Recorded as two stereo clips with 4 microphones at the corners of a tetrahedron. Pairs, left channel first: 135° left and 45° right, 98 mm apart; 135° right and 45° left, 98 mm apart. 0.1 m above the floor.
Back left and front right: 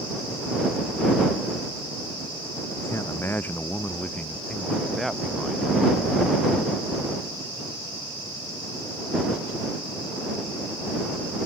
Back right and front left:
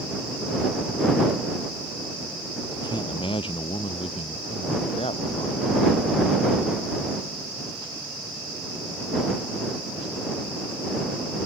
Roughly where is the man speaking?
Behind.